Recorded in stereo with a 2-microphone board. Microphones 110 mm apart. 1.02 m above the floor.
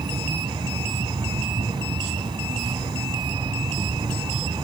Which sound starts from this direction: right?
An insect, at 0.0 s.